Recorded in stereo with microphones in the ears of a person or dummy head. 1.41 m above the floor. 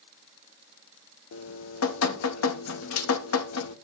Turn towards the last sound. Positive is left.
turn(degrees=85)